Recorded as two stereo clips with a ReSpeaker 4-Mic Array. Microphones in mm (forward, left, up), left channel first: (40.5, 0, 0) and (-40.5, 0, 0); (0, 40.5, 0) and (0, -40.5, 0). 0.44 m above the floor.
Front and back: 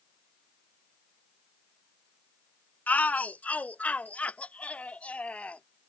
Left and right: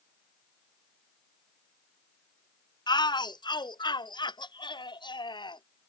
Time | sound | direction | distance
2.9 | a shout | 70° left | ?